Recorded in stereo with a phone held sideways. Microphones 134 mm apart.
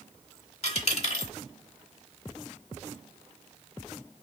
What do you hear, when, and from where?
0.6 s a dropped coin: 50° left (ahead or behind), 1.1 m